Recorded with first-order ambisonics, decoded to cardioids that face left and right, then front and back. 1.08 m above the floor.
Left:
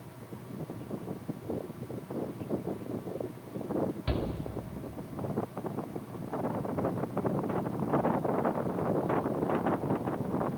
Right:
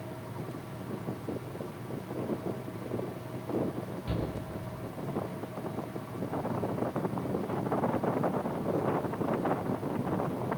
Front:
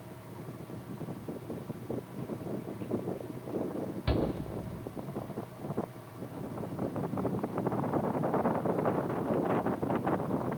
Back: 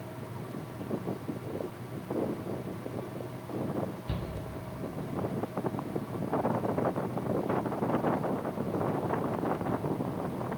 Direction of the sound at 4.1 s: 25° left.